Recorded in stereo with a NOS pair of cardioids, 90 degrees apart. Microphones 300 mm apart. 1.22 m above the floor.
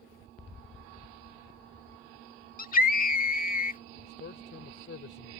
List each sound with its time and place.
2.6 s a scream: 30° left
4.0 s a man speaking: 40° left